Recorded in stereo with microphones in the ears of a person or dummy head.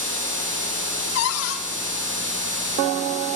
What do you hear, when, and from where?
1.1 s a cupboard door: 65° left (ahead or behind), 2 m